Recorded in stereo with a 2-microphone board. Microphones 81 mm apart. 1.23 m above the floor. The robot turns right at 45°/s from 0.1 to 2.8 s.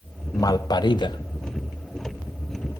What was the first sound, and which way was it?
A man speaking, 45° left.